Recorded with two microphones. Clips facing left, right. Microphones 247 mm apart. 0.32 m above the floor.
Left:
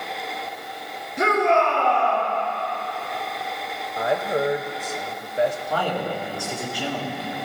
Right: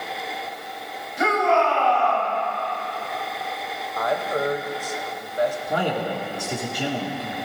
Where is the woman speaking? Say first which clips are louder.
Left 2 dB; 25° left (ahead or behind), 0.9 m.